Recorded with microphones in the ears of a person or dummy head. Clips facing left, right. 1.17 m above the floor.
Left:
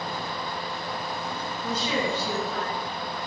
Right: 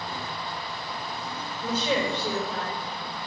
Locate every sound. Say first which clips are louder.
1.6 s a woman speaking: right 2 dB; 30° right (ahead or behind), 4.5 m